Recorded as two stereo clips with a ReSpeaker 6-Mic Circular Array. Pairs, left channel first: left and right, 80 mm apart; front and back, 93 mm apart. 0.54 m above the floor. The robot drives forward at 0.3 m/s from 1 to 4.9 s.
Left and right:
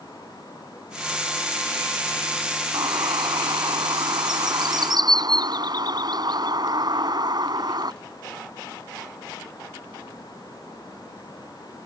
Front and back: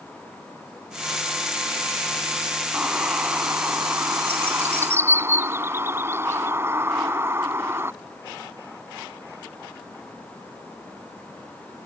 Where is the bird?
110° right; by 7.9 s 120° right.